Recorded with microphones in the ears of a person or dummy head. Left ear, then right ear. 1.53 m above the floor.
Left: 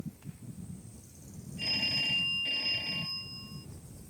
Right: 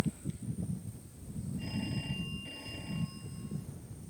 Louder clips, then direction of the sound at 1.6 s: Left 12 dB; 75° left (ahead or behind).